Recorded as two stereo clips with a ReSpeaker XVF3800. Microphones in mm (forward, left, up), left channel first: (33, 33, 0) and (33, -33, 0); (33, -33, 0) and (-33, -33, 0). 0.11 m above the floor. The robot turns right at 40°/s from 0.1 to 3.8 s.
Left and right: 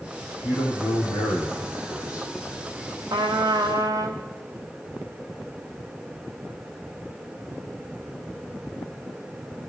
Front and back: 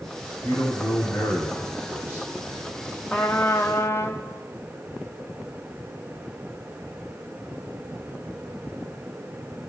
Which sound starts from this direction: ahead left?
A man speaking, at 0.4 s.